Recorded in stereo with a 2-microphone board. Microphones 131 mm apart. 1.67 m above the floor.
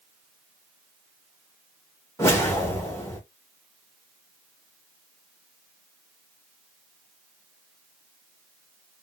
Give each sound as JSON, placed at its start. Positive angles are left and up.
{"t": 2.2, "sound": "a whoosh", "side_deg": 20, "distance_m": 1.2}